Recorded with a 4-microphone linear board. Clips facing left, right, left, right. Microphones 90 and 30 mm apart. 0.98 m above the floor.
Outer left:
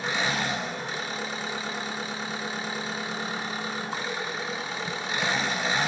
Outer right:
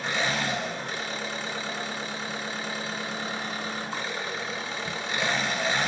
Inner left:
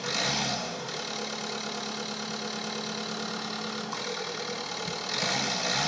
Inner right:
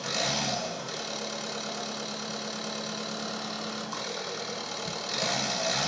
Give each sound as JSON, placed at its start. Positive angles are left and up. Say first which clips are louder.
{"t": 0.0, "sound": "an engine running", "louder": "even, inner left 1 dB", "side_deg": 5, "distance_m": 1.1}